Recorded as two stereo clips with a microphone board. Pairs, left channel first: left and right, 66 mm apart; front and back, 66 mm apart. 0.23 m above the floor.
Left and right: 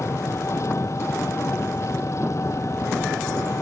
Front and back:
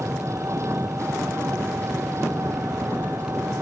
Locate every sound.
0.0 s an engine running: 135° left